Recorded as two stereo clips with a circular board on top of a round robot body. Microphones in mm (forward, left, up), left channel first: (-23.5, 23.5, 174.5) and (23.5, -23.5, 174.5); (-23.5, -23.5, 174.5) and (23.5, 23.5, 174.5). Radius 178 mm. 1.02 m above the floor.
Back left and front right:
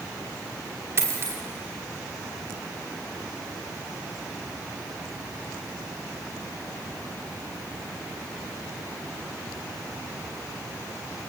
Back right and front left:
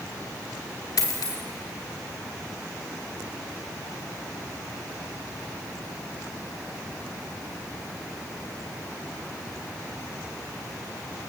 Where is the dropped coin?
100° right, 1.0 m.